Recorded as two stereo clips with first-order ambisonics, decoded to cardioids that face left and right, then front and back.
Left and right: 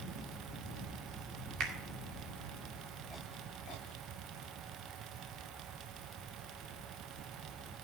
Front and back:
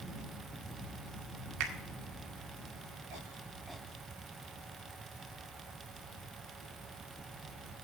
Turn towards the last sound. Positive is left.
turn(degrees=-145)